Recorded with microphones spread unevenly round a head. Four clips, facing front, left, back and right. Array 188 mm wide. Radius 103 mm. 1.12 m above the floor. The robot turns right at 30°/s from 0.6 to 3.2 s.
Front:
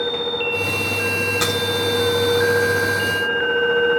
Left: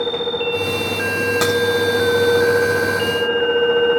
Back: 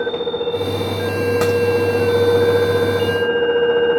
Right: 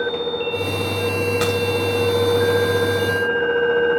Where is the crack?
155° left, 2 m; by 1.6 s 160° left, 2 m.